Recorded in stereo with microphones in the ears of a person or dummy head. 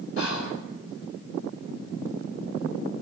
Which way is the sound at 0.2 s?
70° left (ahead or behind).